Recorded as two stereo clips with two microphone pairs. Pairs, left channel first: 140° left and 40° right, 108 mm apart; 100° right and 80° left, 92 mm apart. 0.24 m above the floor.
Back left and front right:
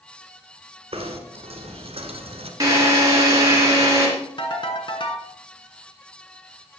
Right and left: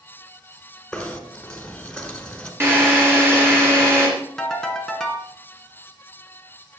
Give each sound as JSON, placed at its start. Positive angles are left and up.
{"t": 0.9, "sound": "knocking", "azimuth_deg": -25, "distance_m": 1.6}
{"t": 2.6, "sound": "a drill", "azimuth_deg": 15, "distance_m": 3.0}
{"t": 4.4, "sound": "a ringtone", "azimuth_deg": 175, "distance_m": 2.0}